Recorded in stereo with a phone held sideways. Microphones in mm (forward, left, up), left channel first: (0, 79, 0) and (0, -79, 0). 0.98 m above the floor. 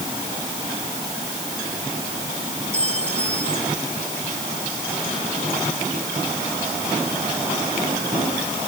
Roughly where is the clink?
Right.